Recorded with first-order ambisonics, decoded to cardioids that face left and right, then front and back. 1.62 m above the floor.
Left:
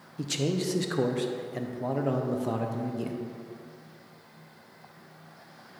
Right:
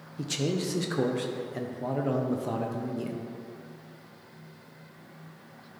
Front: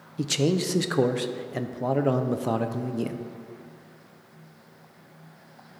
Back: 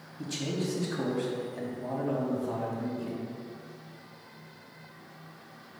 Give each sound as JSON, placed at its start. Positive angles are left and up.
{"t": 0.2, "sound": "a man speaking", "azimuth_deg": 5, "distance_m": 0.8}